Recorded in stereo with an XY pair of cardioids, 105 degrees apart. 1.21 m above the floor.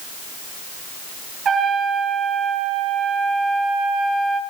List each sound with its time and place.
1.4 s a trumpet: 50° right, 10 m